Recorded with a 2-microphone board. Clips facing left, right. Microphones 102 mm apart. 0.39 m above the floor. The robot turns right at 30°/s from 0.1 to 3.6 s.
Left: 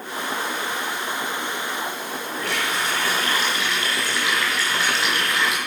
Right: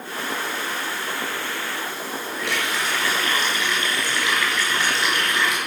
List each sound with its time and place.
2.4 s a running tap: 115° left, 4 m; by 5.6 s 150° left, 4 m